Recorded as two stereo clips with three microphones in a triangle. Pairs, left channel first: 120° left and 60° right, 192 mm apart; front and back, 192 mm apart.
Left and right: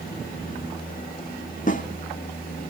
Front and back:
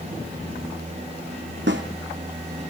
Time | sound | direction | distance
1.7 | a snare drum | 165° left | 2 m